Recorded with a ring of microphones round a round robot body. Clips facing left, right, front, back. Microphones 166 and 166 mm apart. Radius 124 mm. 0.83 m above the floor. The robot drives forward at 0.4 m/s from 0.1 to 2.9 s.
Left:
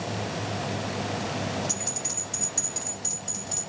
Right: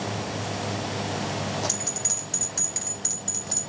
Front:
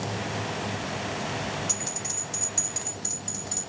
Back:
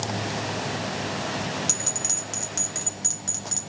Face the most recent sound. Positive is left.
turn(degrees=180)